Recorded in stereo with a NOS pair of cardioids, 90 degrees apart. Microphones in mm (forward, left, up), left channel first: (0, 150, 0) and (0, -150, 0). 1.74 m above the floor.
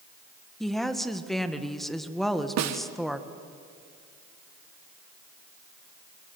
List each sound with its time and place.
0.6 s a woman speaking: straight ahead, 2.0 m
2.6 s a snare drum: 60° right, 1.7 m